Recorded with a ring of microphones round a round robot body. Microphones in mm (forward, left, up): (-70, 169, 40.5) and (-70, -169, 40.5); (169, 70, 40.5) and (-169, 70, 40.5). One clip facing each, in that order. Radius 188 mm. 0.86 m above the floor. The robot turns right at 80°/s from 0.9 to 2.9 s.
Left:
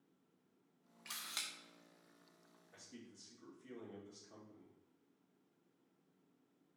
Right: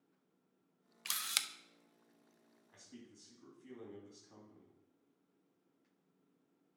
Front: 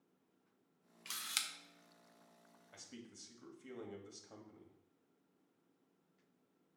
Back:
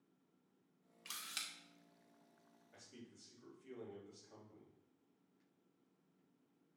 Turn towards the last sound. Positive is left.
turn(degrees=0)